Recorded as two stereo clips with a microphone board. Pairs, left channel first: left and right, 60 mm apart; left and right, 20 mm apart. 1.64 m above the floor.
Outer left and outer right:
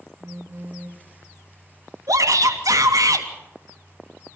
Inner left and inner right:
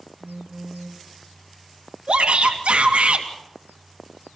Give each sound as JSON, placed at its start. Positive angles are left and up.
{"t": 0.2, "sound": "a phone buzzing", "side_deg": -50, "distance_m": 2.5}
{"t": 2.1, "sound": "a shout", "side_deg": -75, "distance_m": 3.0}